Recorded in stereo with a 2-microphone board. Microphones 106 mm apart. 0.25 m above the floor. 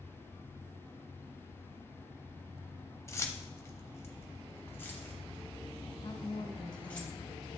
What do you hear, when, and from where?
3.1 s keys jangling: 25° left (ahead or behind), 0.7 m; by 7.0 s 15° left (ahead or behind), 3 m
6.0 s a woman speaking: 50° left (ahead or behind), 1.7 m